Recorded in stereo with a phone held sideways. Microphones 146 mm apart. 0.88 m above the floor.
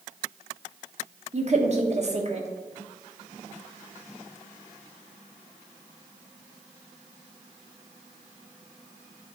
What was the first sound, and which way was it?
A woman speaking, 50° right (ahead or behind).